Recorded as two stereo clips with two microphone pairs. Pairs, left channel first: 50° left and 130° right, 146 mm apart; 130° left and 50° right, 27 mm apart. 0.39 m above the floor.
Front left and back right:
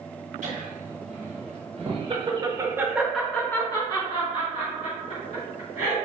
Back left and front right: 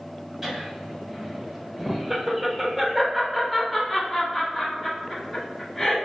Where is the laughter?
130° right, 2.0 m; by 6.0 s 50° left, 2.0 m.